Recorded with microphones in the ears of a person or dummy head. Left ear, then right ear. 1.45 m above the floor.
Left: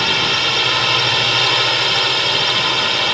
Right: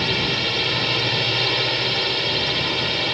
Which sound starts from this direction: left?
A drone, at 0.0 s.